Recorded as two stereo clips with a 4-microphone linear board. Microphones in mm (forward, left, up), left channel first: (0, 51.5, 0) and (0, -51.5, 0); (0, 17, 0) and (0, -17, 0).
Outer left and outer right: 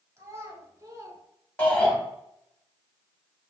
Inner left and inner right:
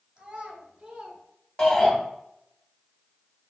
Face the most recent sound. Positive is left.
turn(degrees=15)  # may be behind; listen again after turning